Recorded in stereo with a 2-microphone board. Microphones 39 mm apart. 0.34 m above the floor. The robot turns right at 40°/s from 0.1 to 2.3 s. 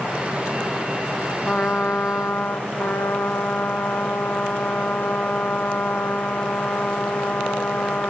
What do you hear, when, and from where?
1.4 s a trumpet: 30° left, 3 m; by 8.1 s 65° left, 3 m